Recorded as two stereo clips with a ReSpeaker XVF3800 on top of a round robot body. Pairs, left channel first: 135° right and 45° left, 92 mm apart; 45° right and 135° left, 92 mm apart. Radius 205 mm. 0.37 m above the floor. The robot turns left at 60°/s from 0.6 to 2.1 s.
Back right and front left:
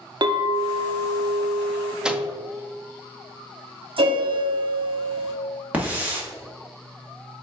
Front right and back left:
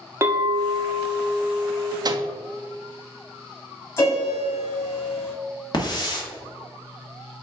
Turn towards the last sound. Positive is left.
turn(degrees=-25)